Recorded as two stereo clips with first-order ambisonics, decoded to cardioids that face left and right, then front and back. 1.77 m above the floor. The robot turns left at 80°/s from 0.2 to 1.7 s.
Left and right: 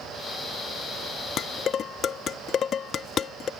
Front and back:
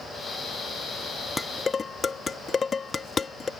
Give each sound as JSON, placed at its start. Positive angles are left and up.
{"t": 1.4, "sound": "dishes clattering", "azimuth_deg": 80}